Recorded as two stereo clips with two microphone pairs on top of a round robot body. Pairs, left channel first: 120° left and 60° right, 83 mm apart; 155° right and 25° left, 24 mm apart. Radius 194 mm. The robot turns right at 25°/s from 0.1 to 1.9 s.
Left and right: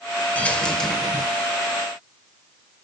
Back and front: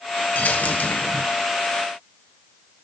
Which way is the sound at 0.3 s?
170° right.